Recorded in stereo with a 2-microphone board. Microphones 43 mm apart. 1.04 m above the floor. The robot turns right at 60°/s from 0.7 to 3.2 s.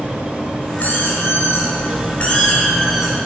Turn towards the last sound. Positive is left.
turn(degrees=-160)